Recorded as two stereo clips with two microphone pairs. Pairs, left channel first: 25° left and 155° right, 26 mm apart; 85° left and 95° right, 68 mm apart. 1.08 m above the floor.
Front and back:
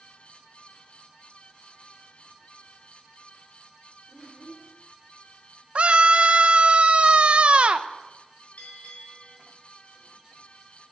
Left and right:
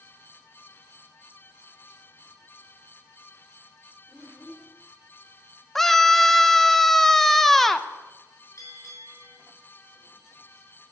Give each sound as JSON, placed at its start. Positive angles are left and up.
{"t": 4.1, "sound": "a child speaking", "azimuth_deg": 5, "distance_m": 3.0}
{"t": 5.8, "sound": "a scream", "azimuth_deg": 170, "distance_m": 0.9}
{"t": 8.6, "sound": "a bell", "azimuth_deg": 45, "distance_m": 6.0}